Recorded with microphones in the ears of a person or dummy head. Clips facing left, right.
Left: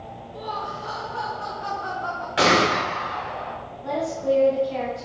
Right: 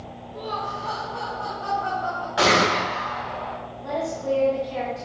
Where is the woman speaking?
Centre (ahead or behind), 3 m.